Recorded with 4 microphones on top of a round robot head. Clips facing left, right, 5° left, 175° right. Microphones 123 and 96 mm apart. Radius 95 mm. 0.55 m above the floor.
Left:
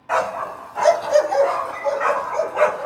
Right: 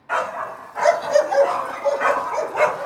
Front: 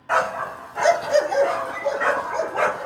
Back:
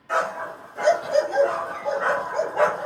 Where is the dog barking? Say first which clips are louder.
Left 3 dB, front 3 dB; 35° left, 1.2 m; by 2.9 s 40° right, 1.9 m.